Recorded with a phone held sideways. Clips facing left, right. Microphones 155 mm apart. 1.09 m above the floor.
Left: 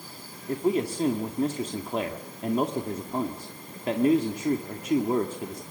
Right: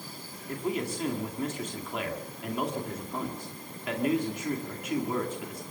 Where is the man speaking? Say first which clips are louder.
Left 6 dB; 35° left (ahead or behind), 2 m.